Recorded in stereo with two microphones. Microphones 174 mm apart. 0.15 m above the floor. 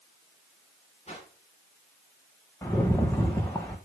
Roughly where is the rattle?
Centre.